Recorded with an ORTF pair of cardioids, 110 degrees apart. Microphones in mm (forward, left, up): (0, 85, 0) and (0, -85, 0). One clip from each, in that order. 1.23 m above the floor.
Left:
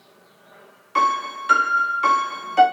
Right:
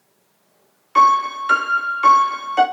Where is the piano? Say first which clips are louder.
Right 6 dB; 10° right, 0.7 m.